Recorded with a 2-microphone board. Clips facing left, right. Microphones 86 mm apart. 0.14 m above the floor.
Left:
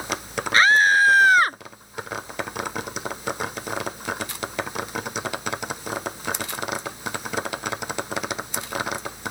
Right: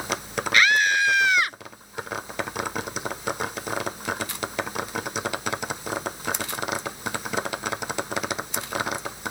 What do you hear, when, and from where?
0.5 s a scream: 35° left (ahead or behind); by 1.6 s 45° left (ahead or behind)